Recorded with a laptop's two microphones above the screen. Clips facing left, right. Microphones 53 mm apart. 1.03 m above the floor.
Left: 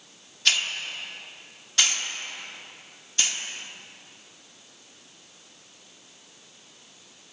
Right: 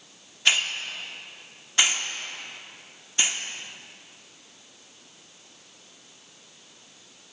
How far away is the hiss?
About 1.2 m.